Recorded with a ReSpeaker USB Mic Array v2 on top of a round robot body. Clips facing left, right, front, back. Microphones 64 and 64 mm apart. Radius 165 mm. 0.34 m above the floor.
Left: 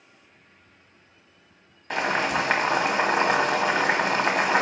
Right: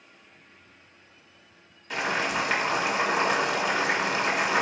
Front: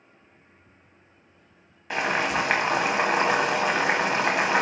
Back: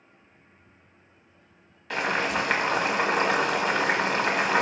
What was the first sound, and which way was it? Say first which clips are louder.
Boiling: left 3 dB, front 1 dB; 65° left.